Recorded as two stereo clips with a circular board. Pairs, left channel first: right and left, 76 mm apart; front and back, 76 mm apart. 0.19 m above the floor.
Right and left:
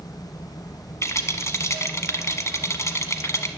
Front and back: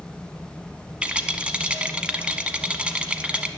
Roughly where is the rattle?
Right.